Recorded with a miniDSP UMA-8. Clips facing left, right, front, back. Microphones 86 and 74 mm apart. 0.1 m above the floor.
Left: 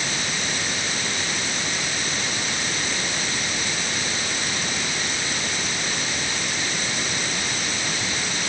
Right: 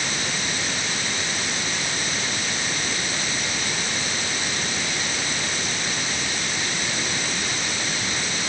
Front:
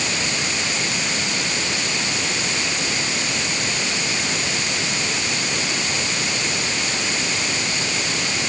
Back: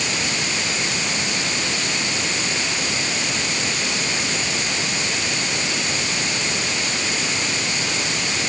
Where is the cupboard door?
I don't hear a cupboard door.